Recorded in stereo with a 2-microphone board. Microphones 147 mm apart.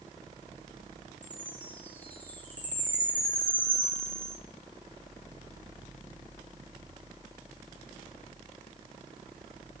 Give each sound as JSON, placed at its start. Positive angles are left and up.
{"t": 1.2, "sound": "a chime", "side_deg": 10, "distance_m": 2.5}